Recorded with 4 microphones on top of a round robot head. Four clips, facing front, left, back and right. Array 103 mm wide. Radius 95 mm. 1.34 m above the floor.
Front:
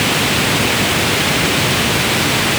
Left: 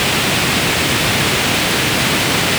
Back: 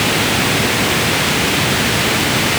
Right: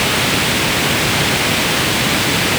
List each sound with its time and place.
Only background noise.